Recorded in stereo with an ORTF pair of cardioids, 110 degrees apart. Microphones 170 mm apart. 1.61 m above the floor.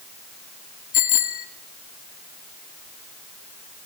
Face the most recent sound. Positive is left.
turn(degrees=55)